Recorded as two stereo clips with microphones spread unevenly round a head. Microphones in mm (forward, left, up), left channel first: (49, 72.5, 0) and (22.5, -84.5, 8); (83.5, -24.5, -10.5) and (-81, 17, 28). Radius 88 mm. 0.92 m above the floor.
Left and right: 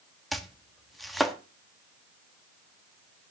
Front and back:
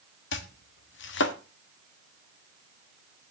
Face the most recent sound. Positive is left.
turn(degrees=-10)